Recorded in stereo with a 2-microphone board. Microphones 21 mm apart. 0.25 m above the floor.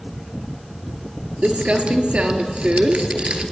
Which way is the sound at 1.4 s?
75° right (ahead or behind).